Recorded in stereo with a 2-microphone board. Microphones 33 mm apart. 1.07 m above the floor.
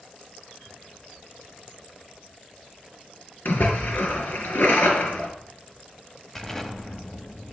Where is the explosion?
15° left (ahead or behind), 1.5 m.